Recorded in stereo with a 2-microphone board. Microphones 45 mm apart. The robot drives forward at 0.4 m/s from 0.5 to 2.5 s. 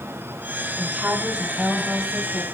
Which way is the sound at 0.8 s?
20° right (ahead or behind).